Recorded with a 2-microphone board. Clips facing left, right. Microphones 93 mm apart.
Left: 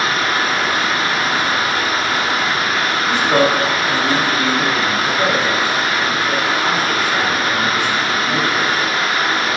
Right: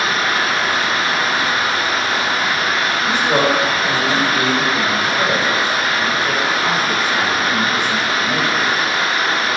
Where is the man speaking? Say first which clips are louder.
Left 2 dB; 20° right (ahead or behind), 0.9 m.